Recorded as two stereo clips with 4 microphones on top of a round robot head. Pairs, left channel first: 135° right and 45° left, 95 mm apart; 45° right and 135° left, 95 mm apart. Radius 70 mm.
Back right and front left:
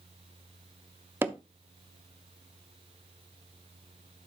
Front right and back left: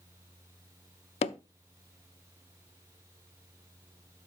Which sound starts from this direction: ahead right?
Hammering, at 1.2 s.